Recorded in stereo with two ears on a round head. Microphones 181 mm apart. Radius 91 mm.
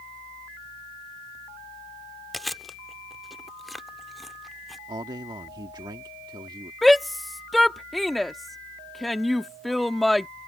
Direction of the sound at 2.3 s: Centre (ahead or behind).